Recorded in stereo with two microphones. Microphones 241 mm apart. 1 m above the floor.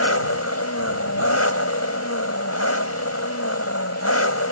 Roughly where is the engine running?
Left.